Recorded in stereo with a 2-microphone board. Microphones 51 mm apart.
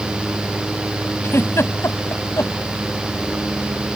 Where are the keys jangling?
No keys jangling in this recording.